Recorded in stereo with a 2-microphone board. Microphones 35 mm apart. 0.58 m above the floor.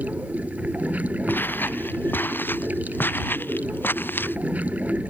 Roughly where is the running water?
Right.